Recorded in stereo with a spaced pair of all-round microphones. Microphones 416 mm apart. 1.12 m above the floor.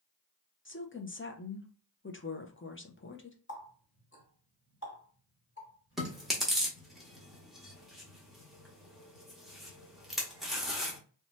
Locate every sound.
0.7 s a woman speaking: 30° left (ahead or behind), 0.6 m
3.5 s a running tap: 30° left (ahead or behind), 1.6 m
6.0 s chewing: centre (ahead or behind), 1.0 m